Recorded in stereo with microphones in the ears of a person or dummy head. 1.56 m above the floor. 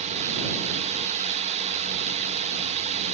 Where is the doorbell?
I don't hear a doorbell.